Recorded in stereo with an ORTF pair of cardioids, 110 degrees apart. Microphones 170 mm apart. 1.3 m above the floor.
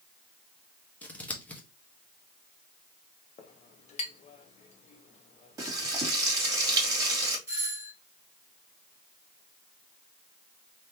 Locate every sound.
1.0 s scissors: 10° left, 1.0 m
3.4 s a clink: 40° left, 1.0 m
5.6 s frying: 20° right, 2 m
7.5 s a doorbell: 15° right, 2.5 m